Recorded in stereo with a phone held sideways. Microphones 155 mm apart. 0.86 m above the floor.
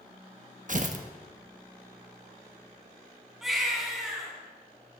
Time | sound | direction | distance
0.7 | tearing paper | 55° right (ahead or behind) | 1.1 m
3.4 | a baby crying | centre (ahead or behind) | 4 m